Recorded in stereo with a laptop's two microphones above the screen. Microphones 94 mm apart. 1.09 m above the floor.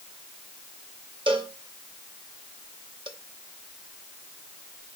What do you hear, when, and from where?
1.3 s a cowbell: 70° right (ahead or behind), 1.1 m